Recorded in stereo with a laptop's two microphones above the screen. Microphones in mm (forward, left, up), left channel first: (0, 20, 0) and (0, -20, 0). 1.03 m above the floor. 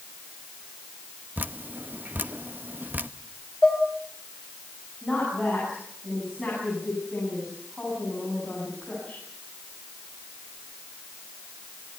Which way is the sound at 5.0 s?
5° left (ahead or behind).